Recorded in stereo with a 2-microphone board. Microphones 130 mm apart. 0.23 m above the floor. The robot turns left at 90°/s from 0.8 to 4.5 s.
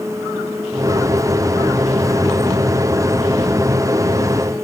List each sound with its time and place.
Only background noise.